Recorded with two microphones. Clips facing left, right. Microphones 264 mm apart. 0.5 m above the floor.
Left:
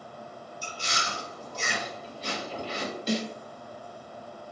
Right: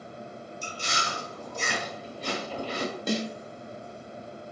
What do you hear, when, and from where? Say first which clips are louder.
0.6 s chewing: right 1 dB; 55° right (ahead or behind), 1.1 m
3.1 s a snare drum: left 1 dB; 55° right (ahead or behind), 0.9 m